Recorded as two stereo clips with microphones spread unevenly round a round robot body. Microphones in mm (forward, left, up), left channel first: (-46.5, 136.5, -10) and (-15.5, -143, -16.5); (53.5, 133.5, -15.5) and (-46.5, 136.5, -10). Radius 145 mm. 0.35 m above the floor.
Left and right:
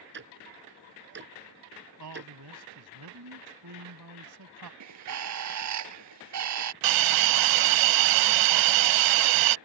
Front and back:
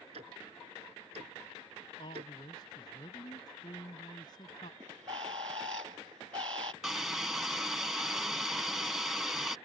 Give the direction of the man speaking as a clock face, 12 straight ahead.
2 o'clock.